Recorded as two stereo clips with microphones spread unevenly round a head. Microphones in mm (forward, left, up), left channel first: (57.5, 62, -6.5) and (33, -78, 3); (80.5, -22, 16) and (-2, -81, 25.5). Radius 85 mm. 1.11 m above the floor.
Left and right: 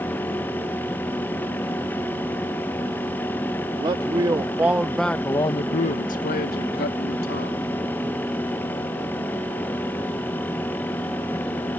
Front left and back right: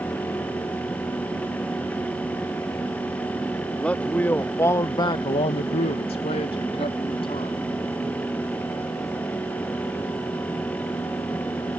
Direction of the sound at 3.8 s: 45° right.